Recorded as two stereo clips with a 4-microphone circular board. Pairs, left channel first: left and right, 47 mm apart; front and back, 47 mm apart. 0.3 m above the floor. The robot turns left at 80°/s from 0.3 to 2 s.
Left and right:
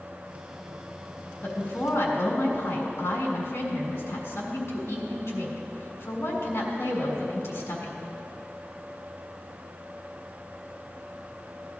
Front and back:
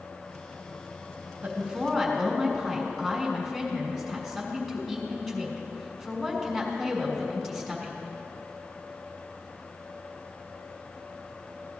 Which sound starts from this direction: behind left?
A woman speaking, at 1.4 s.